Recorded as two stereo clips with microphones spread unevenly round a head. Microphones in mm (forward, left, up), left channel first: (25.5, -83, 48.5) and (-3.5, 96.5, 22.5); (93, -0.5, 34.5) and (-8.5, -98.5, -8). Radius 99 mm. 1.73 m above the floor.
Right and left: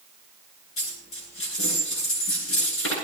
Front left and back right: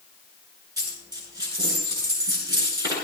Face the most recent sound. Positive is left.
turn(degrees=-75)